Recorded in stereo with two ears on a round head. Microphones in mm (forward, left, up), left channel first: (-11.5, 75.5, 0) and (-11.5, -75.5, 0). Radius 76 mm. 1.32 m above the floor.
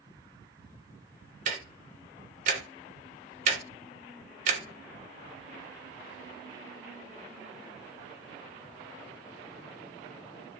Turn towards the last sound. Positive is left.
turn(degrees=-45)  # may be behind; listen again after turning